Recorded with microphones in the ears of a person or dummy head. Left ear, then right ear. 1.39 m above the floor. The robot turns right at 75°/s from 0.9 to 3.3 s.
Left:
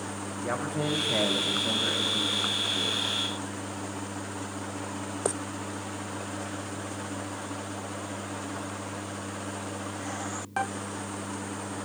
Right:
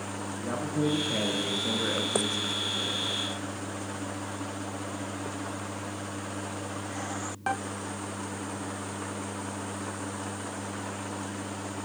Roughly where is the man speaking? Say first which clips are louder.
Even; behind left.